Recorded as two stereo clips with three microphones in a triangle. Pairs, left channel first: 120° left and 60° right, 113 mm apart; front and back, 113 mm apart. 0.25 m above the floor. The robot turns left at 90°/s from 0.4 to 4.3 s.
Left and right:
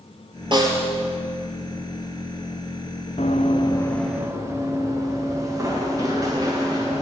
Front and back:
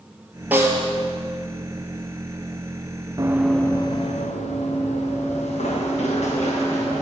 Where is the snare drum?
105° right, 1.7 m; by 1.0 s 145° right, 1.7 m.